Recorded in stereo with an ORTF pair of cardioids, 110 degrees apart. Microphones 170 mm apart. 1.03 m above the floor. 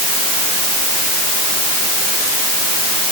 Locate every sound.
Only background noise.